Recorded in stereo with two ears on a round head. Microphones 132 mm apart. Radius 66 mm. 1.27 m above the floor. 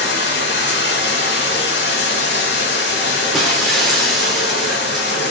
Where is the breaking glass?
Centre (ahead or behind), 2.5 m.